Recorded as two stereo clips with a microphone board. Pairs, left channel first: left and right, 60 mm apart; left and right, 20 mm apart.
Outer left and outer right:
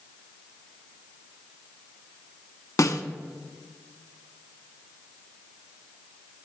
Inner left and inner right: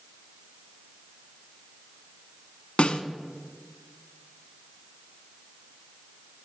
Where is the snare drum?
65° left (ahead or behind), 0.8 m.